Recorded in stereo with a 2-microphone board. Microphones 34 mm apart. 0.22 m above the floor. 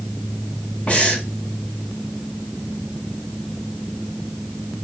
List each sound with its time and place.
0.9 s breathing: 40° left (ahead or behind), 2 m